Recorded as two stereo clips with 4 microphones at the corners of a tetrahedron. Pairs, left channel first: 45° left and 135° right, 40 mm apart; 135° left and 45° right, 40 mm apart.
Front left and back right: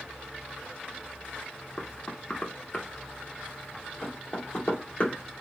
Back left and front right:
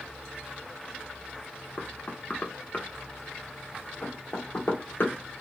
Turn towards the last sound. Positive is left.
turn(degrees=100)